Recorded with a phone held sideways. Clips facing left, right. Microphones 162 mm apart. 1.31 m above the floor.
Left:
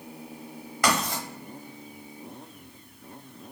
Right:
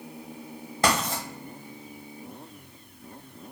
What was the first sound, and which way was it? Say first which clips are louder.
Writing: right 1 dB; 30° right (ahead or behind).